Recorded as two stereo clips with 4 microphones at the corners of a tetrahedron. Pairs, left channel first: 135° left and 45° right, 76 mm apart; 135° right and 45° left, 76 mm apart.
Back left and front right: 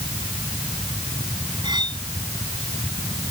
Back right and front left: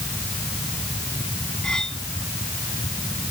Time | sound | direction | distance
1.6 | cutlery clinking | 55° right | ?